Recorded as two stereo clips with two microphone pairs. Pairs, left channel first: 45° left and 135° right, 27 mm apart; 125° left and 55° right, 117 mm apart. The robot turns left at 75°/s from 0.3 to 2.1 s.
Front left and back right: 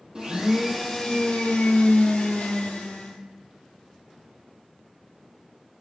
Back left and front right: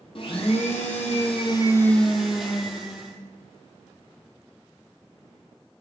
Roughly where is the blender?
Behind.